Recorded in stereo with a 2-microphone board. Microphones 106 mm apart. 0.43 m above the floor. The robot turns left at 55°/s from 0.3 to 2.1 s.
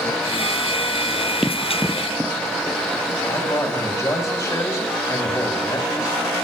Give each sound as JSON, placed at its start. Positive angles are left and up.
{"t": 1.4, "sound": "running footsteps", "side_deg": -5, "distance_m": 0.7}
{"t": 3.3, "sound": "a man speaking", "side_deg": 30, "distance_m": 3.0}